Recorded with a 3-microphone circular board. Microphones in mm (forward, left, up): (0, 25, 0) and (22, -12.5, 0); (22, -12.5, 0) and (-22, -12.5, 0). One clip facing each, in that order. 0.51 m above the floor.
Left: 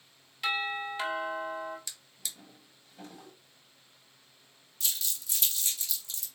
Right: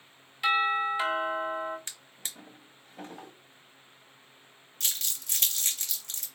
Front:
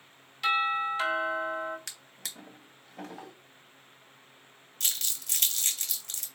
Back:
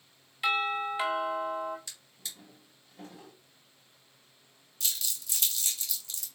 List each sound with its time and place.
0.4 s a doorbell: 130° right, 1.5 m
1.9 s a drawer: 10° right, 0.9 m
4.8 s crumpling: 30° right, 1.2 m